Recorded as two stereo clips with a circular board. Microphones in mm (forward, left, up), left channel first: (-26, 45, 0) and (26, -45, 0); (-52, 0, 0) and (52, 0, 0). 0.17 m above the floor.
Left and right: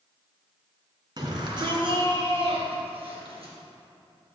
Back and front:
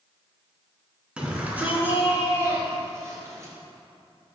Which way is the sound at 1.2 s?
75° right.